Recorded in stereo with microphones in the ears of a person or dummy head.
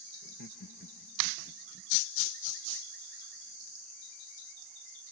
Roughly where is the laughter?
Left.